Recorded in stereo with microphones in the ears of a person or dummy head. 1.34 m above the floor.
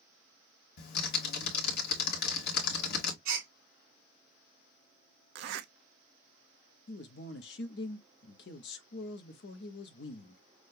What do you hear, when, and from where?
0.8 s typing on a keyboard: 65° left (ahead or behind), 1.5 m
3.2 s a gasp: 55° right (ahead or behind), 4 m
5.3 s a zipper: 70° right (ahead or behind), 0.9 m
6.9 s a man speaking: 55° left (ahead or behind), 0.8 m